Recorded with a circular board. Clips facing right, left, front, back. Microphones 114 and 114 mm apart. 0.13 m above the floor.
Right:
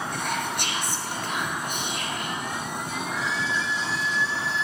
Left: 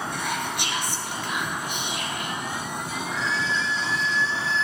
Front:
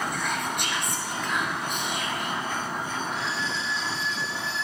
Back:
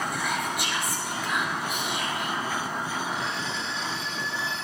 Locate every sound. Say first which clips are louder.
0.1 s whispering: even, even; 95° right, 2 m
3.1 s a violin: left 2 dB, even; 165° right, 0.8 m